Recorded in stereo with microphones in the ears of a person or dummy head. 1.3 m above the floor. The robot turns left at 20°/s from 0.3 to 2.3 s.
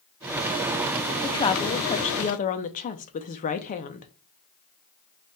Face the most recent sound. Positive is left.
turn(degrees=40)  # may be behind; listen again after turning